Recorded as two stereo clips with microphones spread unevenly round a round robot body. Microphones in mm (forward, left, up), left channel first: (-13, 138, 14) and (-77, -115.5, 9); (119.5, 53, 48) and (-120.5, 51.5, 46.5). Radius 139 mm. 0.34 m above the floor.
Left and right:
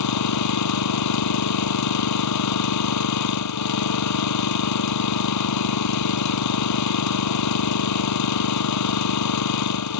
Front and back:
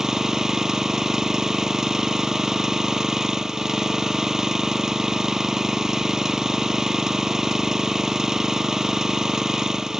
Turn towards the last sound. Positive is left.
turn(degrees=90)